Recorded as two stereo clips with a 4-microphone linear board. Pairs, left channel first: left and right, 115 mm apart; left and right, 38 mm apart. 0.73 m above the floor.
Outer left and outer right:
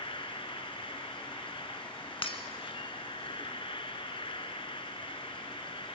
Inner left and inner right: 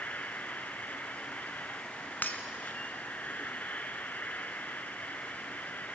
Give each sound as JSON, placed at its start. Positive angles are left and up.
{"t": 0.0, "sound": "an insect", "side_deg": 50, "distance_m": 1.1}
{"t": 2.2, "sound": "breaking glass", "side_deg": 50, "distance_m": 2.0}